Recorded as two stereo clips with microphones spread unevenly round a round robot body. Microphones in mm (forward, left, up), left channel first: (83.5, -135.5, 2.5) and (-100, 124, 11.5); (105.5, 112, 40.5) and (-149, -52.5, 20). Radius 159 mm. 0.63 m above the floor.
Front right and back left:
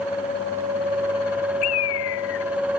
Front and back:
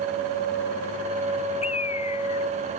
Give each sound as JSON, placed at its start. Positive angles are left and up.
{"t": 1.6, "sound": "a bird", "azimuth_deg": -40}